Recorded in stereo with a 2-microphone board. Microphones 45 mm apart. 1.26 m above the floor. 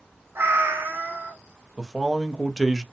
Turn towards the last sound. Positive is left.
turn(degrees=0)  # may be behind; listen again after turning